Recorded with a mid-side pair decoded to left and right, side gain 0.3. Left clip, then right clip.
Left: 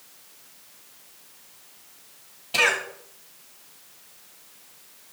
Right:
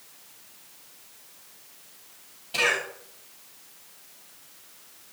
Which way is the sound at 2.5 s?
55° left.